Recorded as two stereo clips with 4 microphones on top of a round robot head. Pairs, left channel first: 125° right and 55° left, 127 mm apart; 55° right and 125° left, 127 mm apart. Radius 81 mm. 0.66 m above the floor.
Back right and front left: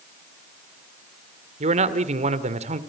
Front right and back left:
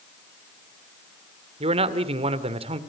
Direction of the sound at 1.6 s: 85° left.